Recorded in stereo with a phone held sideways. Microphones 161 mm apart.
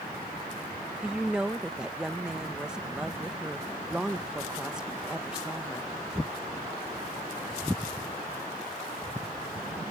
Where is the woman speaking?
5° right (ahead or behind).